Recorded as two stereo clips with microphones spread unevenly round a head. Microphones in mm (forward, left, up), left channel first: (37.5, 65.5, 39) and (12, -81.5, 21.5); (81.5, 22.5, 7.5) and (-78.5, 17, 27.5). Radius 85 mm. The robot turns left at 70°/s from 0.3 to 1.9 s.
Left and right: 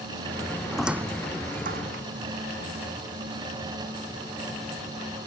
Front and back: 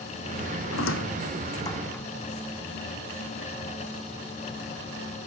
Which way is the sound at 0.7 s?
5° right.